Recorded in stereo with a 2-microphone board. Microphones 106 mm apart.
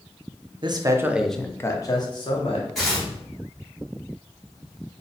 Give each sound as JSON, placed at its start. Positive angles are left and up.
{"t": 0.6, "sound": "a man speaking", "side_deg": -45, "distance_m": 0.6}
{"t": 2.8, "sound": "tearing paper", "side_deg": 5, "distance_m": 1.7}